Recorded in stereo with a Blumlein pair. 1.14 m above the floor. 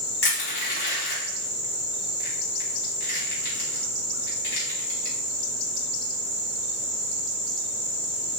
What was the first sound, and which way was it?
Crushing, 50° left.